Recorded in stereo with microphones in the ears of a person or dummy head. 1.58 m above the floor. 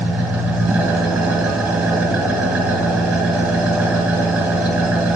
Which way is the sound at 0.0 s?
5° right (ahead or behind).